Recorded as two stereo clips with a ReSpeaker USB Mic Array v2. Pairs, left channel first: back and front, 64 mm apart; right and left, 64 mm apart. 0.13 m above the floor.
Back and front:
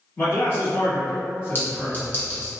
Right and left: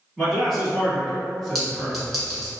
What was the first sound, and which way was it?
A man speaking, 175° right.